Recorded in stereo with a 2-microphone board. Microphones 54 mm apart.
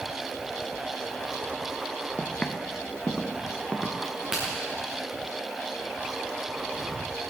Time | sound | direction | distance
2.2 | footsteps | 15° left (ahead or behind) | 1.2 m
4.0 | a crack | 20° right (ahead or behind) | 5.5 m